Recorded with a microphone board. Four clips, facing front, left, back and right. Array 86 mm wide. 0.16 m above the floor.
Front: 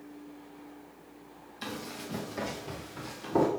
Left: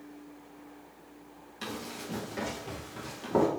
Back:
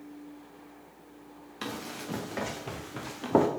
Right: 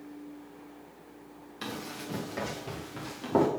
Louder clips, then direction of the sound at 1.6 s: Right 1 dB, back 2 dB; 175° right.